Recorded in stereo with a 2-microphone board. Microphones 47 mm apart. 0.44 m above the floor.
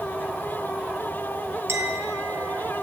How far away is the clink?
About 2.5 m.